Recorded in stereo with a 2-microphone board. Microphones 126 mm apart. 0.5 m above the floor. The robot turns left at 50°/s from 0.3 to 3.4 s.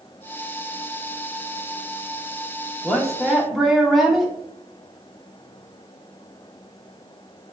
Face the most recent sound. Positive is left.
turn(degrees=0)  # may be behind; listen again after turning